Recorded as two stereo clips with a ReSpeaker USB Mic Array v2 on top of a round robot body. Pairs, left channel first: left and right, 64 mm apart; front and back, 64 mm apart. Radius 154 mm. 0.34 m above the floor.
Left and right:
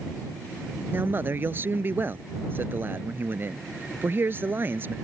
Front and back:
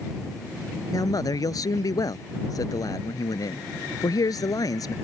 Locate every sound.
0.9 s a man speaking: 30° right